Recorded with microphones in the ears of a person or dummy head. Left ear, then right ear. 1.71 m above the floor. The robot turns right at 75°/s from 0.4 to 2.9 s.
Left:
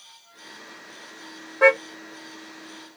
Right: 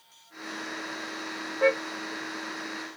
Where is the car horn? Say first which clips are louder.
Left 7 dB; 55° left (ahead or behind); by 1.8 s 40° left (ahead or behind).